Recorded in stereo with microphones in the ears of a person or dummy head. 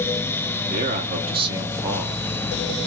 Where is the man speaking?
35° right (ahead or behind), 0.8 m; by 2.9 s 10° left (ahead or behind), 1.1 m.